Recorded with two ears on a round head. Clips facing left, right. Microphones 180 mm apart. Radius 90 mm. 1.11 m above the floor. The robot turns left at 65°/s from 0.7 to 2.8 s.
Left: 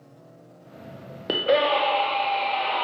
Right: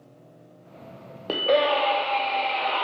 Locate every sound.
1.3 s a scream: 25° left, 0.5 m; by 2.8 s 75° right, 0.5 m